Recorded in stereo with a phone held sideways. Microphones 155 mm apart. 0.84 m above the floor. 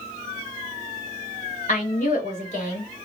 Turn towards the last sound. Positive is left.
turn(degrees=55)  # may be behind; listen again after turning